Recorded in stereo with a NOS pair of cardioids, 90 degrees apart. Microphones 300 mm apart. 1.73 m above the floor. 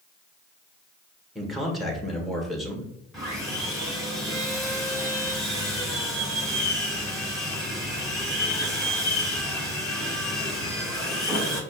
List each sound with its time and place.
1.4 s a man speaking: straight ahead, 1.4 m
3.1 s sawing: straight ahead, 2.0 m